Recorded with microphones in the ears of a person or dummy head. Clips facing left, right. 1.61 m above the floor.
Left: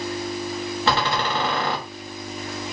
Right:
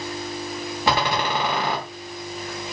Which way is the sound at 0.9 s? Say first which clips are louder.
Right 1 dB; 10° right (ahead or behind).